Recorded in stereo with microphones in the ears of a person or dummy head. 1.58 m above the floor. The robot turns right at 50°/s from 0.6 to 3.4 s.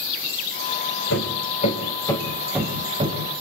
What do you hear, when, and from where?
1.1 s hammering: 65° left (ahead or behind), 5 m; by 3.2 s 40° right (ahead or behind), 5 m